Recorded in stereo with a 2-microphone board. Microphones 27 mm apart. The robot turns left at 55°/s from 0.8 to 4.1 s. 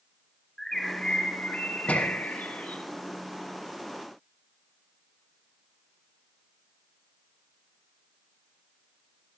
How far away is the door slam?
About 7 m.